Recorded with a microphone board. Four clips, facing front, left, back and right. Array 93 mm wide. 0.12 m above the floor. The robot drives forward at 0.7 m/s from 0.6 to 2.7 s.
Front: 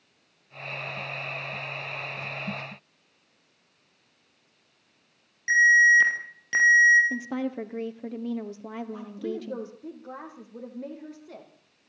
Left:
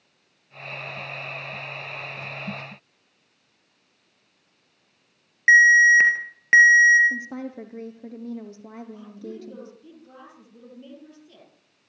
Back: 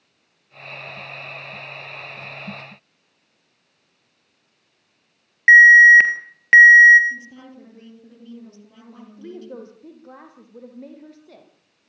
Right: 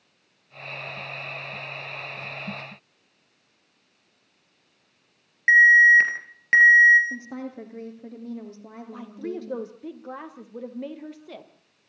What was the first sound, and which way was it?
An alarm, 160° left.